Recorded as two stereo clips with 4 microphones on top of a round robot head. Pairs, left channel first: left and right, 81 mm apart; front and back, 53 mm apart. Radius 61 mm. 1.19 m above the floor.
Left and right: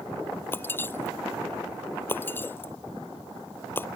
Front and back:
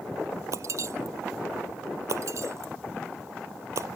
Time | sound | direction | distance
0.5 | breaking glass | 155° left | ?